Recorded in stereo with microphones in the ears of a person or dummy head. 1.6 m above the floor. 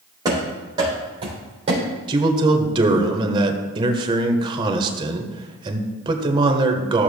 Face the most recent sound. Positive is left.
turn(degrees=-25)  # may be behind; listen again after turning